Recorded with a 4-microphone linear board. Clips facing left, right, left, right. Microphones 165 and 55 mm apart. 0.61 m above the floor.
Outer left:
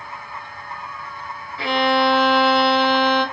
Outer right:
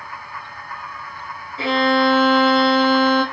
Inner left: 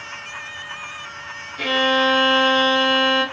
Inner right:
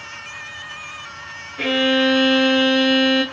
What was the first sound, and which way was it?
A violin, 25° right (ahead or behind).